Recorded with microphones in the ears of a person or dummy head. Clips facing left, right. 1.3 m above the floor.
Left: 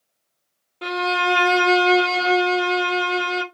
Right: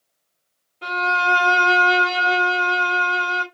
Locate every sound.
0.8 s a violin: 60° left (ahead or behind), 1.1 m